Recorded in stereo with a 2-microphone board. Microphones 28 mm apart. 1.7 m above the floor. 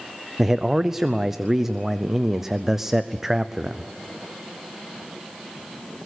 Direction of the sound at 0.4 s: 10° right (ahead or behind).